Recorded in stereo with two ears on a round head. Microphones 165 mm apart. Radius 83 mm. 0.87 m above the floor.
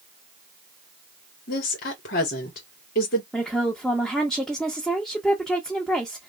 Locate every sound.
1.5 s a woman speaking: 60° left (ahead or behind), 1.9 m
3.3 s a woman speaking: centre (ahead or behind), 0.9 m